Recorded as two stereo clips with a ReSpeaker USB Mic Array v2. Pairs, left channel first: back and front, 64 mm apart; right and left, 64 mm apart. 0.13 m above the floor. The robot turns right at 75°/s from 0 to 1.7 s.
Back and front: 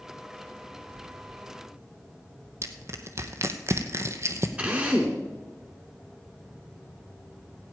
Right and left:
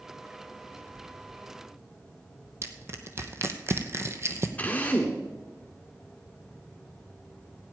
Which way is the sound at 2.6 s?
45° left.